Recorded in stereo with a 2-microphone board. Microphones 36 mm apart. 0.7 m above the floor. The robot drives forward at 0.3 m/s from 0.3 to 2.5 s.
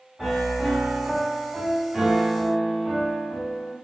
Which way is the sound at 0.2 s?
10° right (ahead or behind).